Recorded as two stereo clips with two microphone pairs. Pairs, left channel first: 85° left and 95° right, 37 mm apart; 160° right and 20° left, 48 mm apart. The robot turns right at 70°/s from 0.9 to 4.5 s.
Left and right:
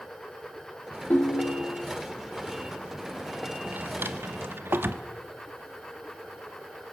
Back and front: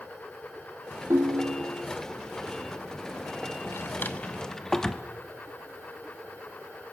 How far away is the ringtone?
About 1.0 m.